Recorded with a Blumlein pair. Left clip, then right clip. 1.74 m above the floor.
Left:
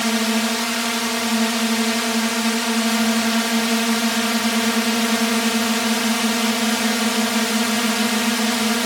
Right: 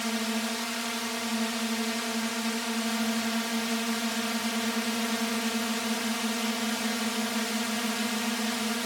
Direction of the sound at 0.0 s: 65° left.